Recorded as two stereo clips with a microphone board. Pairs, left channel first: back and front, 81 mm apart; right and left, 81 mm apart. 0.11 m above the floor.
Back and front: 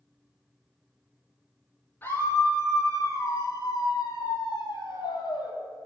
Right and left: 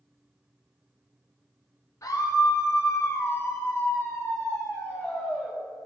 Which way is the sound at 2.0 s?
120° right.